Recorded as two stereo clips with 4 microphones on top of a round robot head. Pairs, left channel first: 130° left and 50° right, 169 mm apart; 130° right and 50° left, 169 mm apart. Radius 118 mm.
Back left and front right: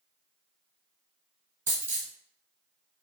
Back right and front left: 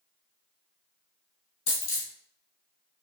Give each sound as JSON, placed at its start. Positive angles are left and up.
{"t": 1.7, "sound": "a dropped coin", "azimuth_deg": -130, "distance_m": 1.2}